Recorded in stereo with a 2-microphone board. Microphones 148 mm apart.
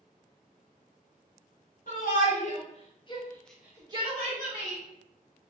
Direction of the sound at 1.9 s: 60° left (ahead or behind).